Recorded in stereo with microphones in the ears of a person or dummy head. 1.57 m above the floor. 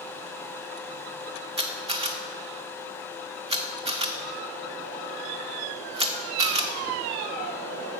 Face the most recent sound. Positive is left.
turn(degrees=-25)  # may be behind; listen again after turning